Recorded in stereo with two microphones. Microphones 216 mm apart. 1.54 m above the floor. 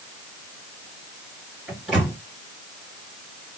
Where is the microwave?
Centre (ahead or behind), 3 m.